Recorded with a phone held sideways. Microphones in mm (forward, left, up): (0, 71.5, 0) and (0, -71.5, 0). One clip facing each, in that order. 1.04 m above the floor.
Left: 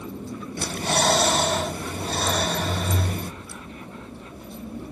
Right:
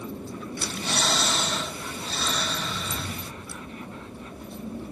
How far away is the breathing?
About 0.8 m.